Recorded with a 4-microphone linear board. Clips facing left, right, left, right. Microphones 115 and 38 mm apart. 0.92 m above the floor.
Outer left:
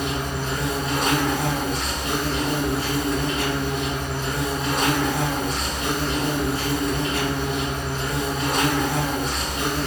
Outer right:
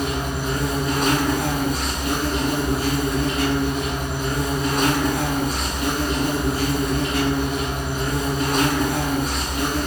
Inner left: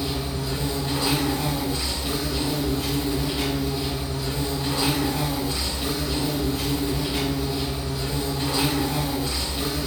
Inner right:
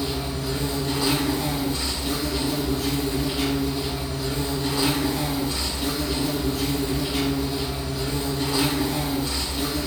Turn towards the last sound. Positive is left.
turn(degrees=30)  # may be behind; listen again after turning